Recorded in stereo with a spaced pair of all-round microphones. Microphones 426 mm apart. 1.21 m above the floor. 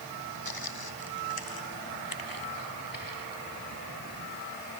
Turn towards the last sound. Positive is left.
turn(degrees=50)  # may be behind; listen again after turning